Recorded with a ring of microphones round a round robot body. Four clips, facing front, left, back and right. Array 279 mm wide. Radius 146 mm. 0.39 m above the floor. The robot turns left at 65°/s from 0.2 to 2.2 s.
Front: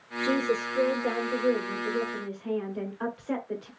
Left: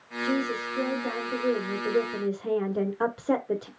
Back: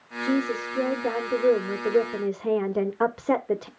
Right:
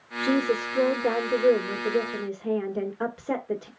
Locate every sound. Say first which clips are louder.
0.2 s a woman speaking: right 4 dB, back 1 dB; 60° right, 1.3 m; by 3.7 s 175° left, 1.3 m